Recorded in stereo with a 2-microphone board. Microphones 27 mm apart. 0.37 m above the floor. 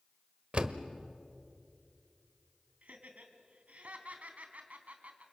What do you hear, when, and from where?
0.5 s a door slam: 45° right (ahead or behind), 1.1 m
2.8 s laughter: 65° right (ahead or behind), 3 m